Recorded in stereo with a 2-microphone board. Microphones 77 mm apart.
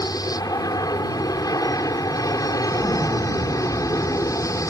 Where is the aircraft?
55° left (ahead or behind); by 4.7 s 45° left (ahead or behind).